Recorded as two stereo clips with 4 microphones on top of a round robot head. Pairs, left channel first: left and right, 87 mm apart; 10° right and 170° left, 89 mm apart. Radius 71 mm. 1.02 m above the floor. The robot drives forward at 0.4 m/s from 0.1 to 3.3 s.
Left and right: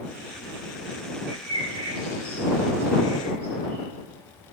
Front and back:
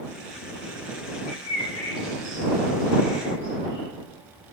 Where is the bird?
60° right, 3 m; by 3.9 s 75° right, 3 m.